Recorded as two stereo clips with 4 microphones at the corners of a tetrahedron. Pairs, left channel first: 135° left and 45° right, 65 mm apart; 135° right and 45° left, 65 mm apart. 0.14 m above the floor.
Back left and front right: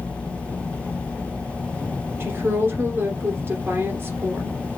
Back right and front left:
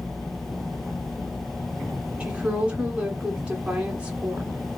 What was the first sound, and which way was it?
A woman speaking, 20° right.